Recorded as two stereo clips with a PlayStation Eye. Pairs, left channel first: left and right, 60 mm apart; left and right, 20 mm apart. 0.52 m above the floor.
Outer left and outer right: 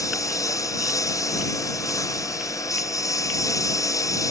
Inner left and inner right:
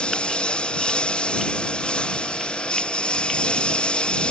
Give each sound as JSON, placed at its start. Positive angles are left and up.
{"t": 0.0, "sound": "a lawn mower", "side_deg": 60}